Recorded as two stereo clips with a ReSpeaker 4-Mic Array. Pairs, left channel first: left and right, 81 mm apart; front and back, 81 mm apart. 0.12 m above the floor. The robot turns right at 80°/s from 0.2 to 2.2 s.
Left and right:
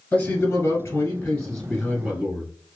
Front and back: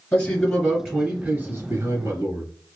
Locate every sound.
0.1 s a man speaking: 55° left, 1.3 m; by 2.5 s 145° right, 1.3 m